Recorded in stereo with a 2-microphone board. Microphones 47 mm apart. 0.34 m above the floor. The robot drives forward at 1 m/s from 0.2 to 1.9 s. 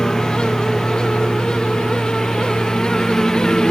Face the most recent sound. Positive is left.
turn(degrees=10)  # may be behind; listen again after turning